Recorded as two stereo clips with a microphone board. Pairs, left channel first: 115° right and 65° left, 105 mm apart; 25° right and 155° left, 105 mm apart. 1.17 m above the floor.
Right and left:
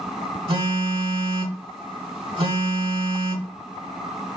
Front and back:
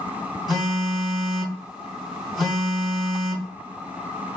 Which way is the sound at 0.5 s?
70° left.